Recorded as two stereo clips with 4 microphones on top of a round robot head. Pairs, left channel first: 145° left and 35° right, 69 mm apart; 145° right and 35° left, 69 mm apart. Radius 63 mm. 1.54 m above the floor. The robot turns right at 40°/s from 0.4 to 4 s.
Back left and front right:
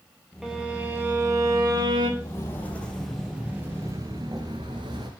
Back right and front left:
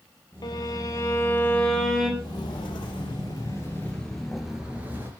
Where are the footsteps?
170° right, 3 m; by 5.1 s 20° right, 1.8 m.